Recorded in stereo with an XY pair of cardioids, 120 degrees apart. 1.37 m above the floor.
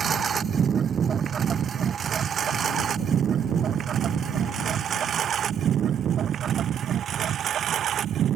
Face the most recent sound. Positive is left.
turn(degrees=-50)